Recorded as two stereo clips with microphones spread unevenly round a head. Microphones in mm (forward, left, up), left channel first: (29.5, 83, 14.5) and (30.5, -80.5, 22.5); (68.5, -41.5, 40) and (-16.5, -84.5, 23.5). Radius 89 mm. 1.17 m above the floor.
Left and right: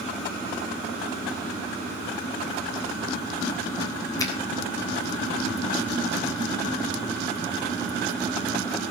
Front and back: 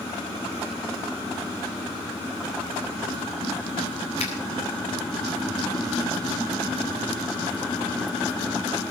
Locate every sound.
4.2 s a finger snap: 20° left, 5 m